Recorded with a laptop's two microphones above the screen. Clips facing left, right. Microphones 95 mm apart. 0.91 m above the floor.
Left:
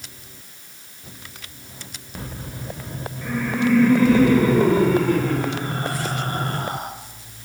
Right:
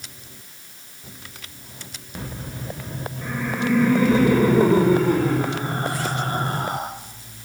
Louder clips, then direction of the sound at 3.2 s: Left 3 dB; 15° right (ahead or behind).